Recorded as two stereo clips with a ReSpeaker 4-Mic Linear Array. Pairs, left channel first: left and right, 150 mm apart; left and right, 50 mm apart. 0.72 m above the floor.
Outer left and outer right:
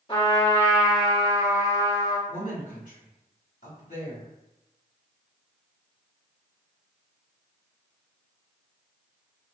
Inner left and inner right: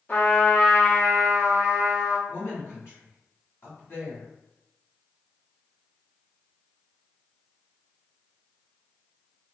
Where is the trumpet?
35° left (ahead or behind), 1.2 m.